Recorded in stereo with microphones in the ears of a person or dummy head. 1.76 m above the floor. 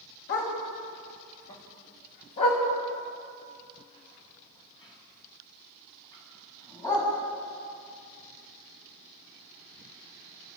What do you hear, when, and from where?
0.3 s a dog barking: 50° left (ahead or behind), 4.5 m; by 7.1 s 15° left (ahead or behind), 6.5 m